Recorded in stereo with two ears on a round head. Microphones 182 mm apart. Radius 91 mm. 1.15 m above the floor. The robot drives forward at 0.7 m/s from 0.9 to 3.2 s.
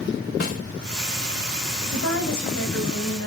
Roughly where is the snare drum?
Left.